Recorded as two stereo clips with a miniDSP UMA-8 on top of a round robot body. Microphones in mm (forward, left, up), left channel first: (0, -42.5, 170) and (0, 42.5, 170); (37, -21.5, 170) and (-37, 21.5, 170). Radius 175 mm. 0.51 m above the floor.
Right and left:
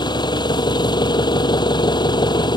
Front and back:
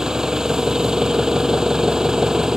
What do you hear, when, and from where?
0.0 s an engine running: 125° right